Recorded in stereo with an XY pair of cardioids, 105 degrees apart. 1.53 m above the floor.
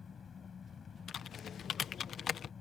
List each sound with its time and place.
0.0 s an engine running: 45° left
1.1 s typing on a keyboard: 60° left